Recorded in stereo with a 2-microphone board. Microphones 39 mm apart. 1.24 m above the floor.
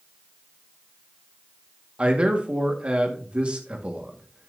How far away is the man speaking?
About 1.6 m.